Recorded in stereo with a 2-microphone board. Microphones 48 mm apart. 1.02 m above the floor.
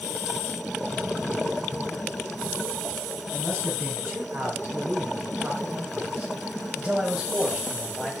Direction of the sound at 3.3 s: 55° right (ahead or behind).